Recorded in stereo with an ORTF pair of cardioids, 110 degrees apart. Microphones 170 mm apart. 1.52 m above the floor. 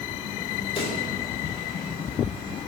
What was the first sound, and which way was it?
A pop, 30° left.